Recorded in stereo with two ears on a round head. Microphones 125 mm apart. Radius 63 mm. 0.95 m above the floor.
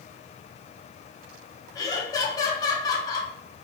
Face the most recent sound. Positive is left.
turn(degrees=25)  # may be behind; listen again after turning